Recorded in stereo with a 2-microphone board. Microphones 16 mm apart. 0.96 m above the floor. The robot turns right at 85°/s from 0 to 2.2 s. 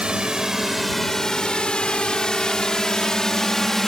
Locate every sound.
0.0 s a drone: 75° right (ahead or behind); by 3.9 s 20° left (ahead or behind)